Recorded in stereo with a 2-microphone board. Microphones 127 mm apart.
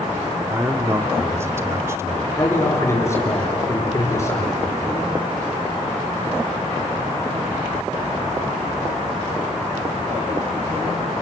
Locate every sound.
0.5 s a man speaking: 20° right (ahead or behind), 1.3 m
2.4 s a man speaking: 20° left (ahead or behind), 7 m